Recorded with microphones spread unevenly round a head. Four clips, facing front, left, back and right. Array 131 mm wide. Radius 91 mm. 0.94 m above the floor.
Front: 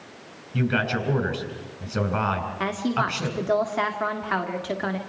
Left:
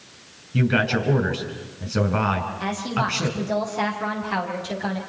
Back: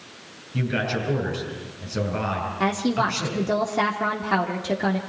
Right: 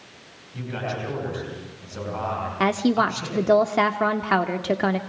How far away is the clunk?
No clunk in this recording.